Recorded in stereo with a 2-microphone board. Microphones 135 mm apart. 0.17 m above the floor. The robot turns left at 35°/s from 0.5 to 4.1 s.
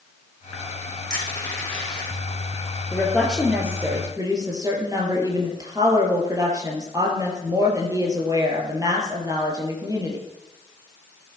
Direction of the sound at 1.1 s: 30° left (ahead or behind).